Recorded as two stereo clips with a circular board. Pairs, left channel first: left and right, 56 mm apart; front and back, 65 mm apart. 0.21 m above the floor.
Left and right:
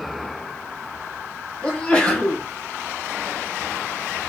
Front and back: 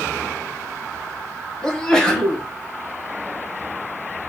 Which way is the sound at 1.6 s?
65° left.